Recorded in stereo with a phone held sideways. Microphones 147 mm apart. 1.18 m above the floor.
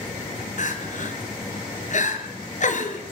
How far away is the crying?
About 4 m.